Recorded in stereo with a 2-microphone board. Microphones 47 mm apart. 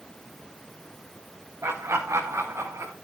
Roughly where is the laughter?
Right.